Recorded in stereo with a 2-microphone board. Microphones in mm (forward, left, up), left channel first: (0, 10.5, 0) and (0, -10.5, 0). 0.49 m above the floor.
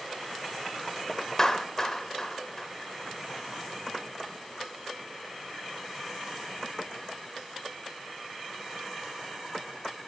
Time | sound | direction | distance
1.4 | a clap | 25° left (ahead or behind) | 1.1 m